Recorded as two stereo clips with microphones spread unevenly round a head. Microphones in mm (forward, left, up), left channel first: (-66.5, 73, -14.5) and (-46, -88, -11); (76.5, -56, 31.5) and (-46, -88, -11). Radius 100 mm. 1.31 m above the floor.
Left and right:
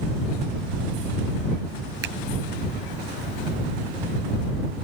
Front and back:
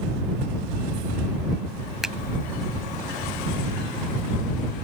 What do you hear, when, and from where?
2.0 s a finger snap: 75° right